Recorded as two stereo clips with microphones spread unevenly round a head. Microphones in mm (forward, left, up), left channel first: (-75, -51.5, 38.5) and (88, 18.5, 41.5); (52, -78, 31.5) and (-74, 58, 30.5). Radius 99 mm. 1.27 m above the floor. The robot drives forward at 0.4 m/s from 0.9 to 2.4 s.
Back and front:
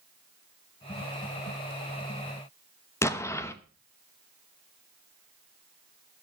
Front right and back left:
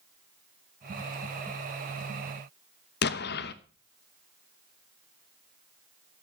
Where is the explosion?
80° right, 0.9 m.